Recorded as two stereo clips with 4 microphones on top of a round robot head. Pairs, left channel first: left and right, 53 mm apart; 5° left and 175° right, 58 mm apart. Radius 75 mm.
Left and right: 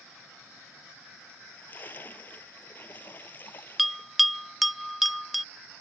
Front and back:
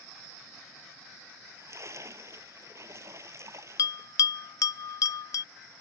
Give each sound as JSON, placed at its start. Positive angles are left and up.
{"t": 1.3, "sound": "a splash", "azimuth_deg": 145}
{"t": 3.8, "sound": "a bell", "azimuth_deg": -5}